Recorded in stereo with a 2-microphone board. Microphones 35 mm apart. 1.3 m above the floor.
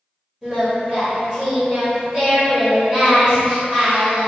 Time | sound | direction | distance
0.4 | singing | 15° right (ahead or behind) | 1.7 m